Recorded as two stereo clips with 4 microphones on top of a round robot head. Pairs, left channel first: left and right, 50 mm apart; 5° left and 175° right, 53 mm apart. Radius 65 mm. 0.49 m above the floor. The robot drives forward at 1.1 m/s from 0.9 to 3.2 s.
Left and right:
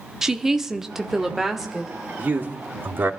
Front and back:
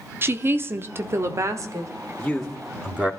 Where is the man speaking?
55° right, 1.2 m; by 3.1 s 125° right, 1.2 m.